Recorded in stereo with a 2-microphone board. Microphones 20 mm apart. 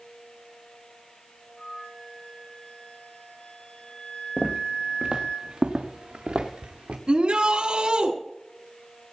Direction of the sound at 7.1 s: 55° right (ahead or behind).